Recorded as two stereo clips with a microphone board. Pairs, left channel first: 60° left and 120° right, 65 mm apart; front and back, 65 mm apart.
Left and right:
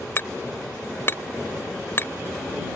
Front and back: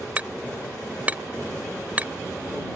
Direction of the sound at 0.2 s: 115° left.